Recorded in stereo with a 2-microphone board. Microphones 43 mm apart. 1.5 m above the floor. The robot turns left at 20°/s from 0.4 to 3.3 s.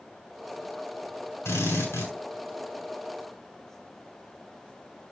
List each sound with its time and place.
1.4 s a drill: 65° left (ahead or behind), 6.5 m; by 2.1 s 80° left, 6.5 m